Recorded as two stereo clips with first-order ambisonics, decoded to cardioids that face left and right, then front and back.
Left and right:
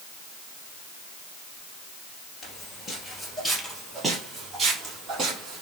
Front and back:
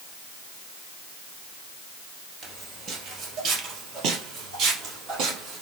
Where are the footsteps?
135° left, 1.7 m; by 5.6 s 150° right, 3.5 m.